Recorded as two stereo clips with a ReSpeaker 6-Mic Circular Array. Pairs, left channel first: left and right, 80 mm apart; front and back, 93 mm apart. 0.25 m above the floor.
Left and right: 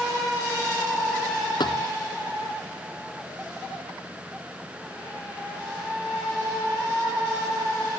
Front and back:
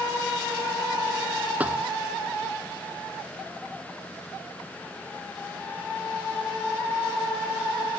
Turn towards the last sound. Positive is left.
turn(degrees=105)